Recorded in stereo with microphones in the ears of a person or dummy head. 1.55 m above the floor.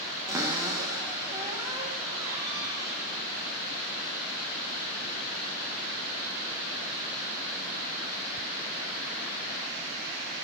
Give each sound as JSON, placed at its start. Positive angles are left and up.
{"t": 0.3, "sound": "a cupboard door", "side_deg": -15, "distance_m": 0.6}